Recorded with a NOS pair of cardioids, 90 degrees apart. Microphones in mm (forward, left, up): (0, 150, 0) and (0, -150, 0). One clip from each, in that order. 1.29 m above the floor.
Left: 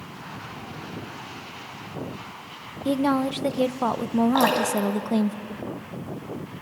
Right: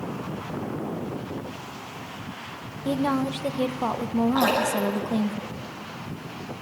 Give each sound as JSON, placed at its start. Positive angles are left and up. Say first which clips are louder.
{"t": 2.9, "sound": "a woman speaking", "louder": "left 2 dB", "azimuth_deg": 15, "distance_m": 0.7}
{"t": 4.3, "sound": "dripping", "louder": "even", "azimuth_deg": 60, "distance_m": 8.5}